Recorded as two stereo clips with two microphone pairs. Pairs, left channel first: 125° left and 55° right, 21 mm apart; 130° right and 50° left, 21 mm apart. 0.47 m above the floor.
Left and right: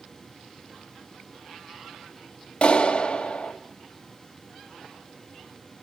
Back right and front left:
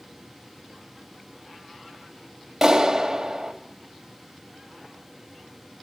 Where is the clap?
120° left, 2.5 m.